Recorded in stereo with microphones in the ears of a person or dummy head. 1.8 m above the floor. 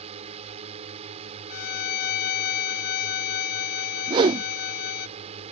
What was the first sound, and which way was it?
A drone, 35° right (ahead or behind).